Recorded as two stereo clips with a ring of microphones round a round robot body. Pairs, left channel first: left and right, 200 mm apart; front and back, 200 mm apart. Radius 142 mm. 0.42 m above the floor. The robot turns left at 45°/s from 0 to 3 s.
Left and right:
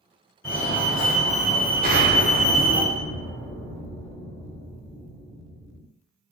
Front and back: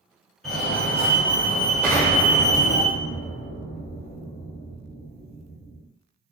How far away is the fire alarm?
About 1.8 m.